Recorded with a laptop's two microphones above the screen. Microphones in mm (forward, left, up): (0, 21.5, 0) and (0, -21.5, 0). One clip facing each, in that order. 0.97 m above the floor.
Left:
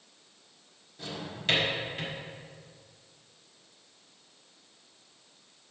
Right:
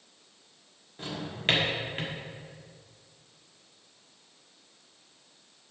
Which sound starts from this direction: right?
A drawer, at 1.0 s.